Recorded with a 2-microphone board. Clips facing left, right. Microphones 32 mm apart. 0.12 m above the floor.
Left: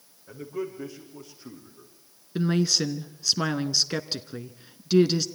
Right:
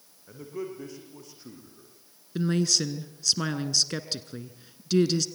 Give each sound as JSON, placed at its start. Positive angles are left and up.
{"t": 0.3, "sound": "a man speaking", "side_deg": 5, "distance_m": 6.0}
{"t": 2.4, "sound": "a woman speaking", "side_deg": 10, "distance_m": 1.1}